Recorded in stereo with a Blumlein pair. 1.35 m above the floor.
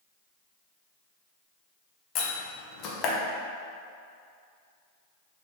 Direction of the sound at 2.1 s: 35° left.